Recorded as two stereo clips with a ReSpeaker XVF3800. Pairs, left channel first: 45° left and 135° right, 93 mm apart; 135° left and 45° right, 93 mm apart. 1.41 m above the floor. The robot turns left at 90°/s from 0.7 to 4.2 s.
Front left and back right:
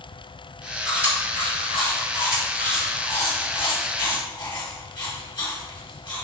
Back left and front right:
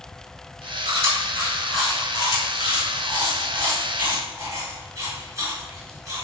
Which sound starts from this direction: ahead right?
Chewing, at 0.8 s.